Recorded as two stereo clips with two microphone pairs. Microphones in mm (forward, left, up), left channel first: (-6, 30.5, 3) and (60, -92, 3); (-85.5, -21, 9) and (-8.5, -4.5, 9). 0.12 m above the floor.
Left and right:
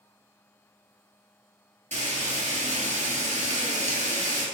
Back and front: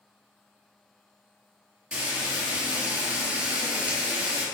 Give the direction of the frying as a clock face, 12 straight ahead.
2 o'clock.